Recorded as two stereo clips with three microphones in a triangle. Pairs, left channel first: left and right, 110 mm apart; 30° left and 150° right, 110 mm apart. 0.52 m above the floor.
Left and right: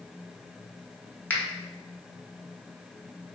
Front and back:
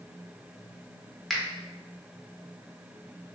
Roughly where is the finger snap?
Behind left.